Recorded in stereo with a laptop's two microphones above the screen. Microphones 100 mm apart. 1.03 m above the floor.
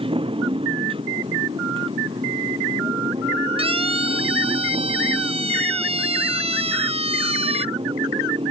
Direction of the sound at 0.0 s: 65° right (ahead or behind).